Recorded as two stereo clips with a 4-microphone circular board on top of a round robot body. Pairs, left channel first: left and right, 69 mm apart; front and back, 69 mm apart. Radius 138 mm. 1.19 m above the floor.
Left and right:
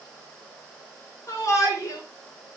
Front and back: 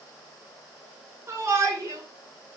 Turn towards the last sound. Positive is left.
turn(degrees=135)